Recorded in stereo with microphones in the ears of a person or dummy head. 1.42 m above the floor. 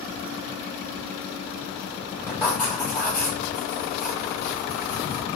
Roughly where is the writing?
Centre.